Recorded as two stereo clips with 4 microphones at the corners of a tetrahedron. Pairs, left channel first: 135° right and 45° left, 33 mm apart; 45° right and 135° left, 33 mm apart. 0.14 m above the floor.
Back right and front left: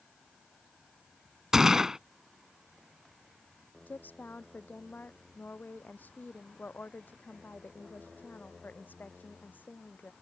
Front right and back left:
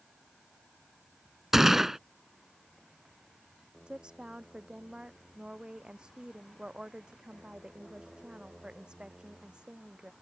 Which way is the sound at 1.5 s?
85° left.